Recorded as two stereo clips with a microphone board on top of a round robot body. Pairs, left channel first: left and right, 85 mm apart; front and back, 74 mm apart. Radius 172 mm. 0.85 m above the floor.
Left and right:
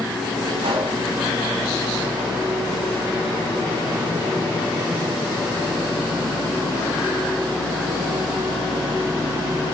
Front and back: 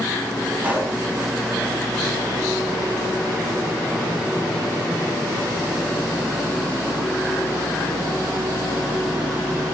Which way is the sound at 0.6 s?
110° right.